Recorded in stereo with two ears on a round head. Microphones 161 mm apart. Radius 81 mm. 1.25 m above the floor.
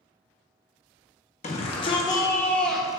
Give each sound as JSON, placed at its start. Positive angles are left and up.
{"t": 1.4, "sound": "a shout", "side_deg": 40, "distance_m": 1.4}